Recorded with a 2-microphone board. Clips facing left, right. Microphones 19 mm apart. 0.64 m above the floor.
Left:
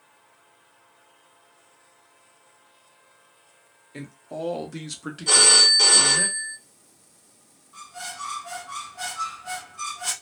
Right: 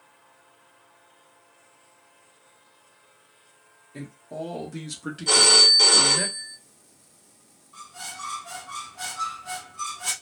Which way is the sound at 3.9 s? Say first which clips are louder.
Left 1 dB; 50° left (ahead or behind).